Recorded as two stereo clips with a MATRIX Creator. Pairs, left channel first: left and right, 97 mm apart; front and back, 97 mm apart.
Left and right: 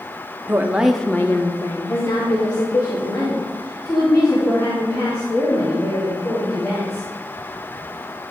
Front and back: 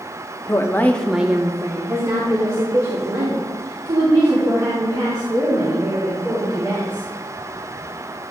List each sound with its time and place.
0.5 s a woman speaking: 35° right, 0.7 m; by 7.0 s 135° left, 5.5 m